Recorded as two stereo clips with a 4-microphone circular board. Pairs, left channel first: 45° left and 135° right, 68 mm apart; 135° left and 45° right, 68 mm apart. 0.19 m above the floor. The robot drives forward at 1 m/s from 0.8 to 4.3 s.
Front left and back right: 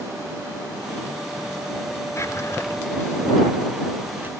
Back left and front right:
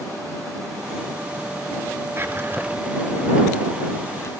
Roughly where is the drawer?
Ahead.